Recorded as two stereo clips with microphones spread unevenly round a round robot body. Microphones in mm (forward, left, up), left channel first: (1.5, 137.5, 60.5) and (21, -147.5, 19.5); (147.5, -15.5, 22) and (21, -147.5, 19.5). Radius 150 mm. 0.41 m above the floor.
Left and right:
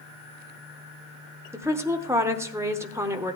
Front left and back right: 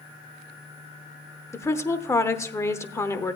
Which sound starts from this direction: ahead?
A woman speaking, at 1.5 s.